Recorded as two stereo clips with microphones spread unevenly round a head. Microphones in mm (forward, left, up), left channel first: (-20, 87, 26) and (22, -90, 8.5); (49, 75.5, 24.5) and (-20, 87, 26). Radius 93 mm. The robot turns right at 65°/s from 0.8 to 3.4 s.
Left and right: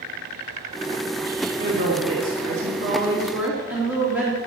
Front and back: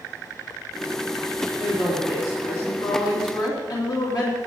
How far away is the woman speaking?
About 3.5 m.